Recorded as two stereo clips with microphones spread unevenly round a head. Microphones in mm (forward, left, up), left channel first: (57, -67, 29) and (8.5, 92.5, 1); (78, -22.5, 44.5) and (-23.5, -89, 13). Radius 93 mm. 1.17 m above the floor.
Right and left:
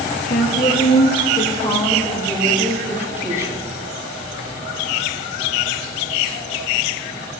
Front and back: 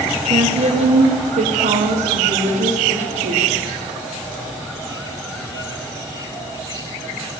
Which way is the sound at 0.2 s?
115° right.